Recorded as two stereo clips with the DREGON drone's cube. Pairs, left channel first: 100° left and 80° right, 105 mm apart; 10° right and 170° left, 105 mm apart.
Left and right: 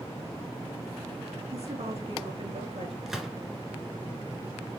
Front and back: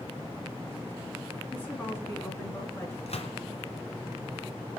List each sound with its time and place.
1.5 s a woman speaking: 85° right, 3.5 m; by 3.0 s 75° right, 4 m
3.1 s a gunshot: 5° left, 1.7 m